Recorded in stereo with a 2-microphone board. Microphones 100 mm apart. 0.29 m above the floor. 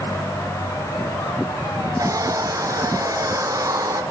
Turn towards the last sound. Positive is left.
turn(degrees=-35)  # may be behind; listen again after turning